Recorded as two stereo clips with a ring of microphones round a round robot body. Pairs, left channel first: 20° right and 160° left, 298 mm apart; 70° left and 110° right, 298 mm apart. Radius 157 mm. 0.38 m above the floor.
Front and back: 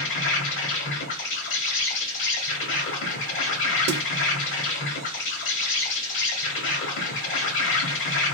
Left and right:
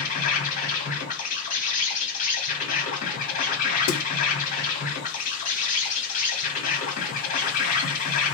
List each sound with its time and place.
0.0 s an insect: 10° left, 1.2 m
3.9 s a snare drum: 105° left, 0.6 m